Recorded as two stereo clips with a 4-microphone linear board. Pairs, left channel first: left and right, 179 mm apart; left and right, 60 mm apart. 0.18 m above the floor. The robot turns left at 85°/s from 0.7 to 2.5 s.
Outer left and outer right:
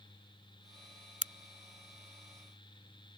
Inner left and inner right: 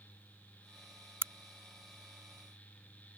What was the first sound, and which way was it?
A crack, 40° right (ahead or behind).